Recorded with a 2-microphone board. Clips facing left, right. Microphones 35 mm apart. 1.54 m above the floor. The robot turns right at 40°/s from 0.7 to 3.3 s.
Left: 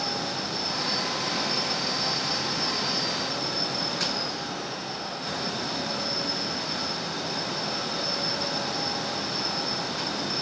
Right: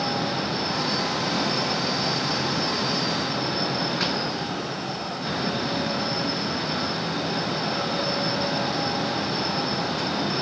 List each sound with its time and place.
Only background noise.